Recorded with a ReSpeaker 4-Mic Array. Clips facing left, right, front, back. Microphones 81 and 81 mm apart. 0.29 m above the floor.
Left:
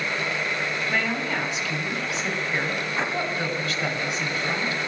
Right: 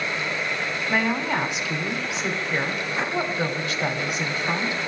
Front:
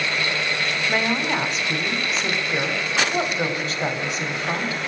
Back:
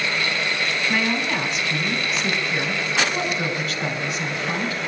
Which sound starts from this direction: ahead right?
A woman speaking, at 0.9 s.